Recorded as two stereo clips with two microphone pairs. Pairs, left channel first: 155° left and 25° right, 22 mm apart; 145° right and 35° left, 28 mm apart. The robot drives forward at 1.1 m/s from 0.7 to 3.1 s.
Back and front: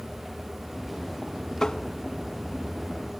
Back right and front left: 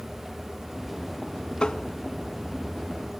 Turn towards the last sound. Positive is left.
turn(degrees=-175)